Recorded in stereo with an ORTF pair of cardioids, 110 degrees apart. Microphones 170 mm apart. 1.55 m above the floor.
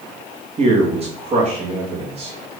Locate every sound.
0.6 s a man speaking: 35° right, 2.5 m